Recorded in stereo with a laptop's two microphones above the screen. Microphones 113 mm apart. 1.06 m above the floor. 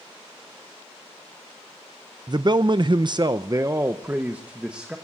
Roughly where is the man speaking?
Right.